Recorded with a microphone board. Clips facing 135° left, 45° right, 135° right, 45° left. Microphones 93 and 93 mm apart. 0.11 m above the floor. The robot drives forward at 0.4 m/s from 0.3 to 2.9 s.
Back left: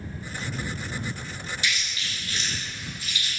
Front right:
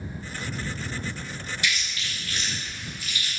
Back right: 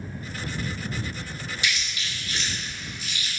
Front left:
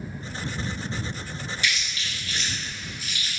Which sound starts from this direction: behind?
Chewing, at 1.6 s.